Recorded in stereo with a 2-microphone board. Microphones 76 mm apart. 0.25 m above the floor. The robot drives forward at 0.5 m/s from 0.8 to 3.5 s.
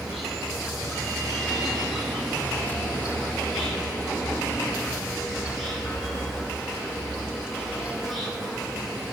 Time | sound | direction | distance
0.0 | an insect | centre (ahead or behind) | 6 m